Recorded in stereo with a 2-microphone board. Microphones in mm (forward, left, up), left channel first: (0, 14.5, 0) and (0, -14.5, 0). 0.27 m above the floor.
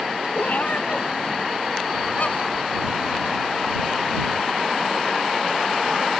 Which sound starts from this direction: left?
A cat meowing, at 0.3 s.